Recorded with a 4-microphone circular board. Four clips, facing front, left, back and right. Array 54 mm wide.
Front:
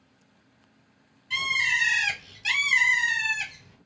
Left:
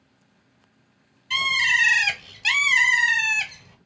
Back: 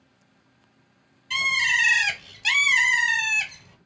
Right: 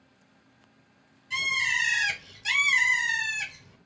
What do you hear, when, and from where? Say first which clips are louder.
1.3 s a bird: left 6 dB, back 3 dB; 115° left, 0.7 m